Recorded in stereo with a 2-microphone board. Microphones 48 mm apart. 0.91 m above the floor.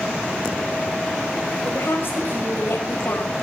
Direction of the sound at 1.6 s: 55° left (ahead or behind).